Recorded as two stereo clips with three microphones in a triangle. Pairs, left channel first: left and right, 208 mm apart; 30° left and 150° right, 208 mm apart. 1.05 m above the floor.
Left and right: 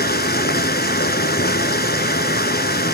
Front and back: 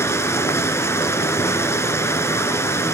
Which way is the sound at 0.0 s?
105° left.